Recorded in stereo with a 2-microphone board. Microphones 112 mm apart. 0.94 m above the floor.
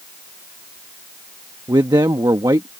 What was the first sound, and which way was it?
A man speaking, 35° right (ahead or behind).